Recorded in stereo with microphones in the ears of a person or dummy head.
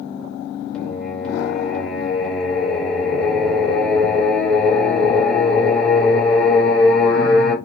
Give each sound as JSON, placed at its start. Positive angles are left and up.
{"t": 0.7, "sound": "singing", "side_deg": 5, "distance_m": 1.4}